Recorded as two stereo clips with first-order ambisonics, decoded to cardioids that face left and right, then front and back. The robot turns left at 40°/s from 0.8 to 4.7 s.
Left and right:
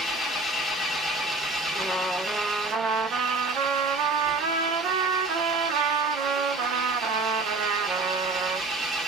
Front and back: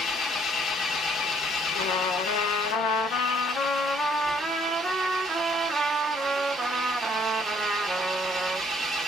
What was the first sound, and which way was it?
An engine running, 25° left.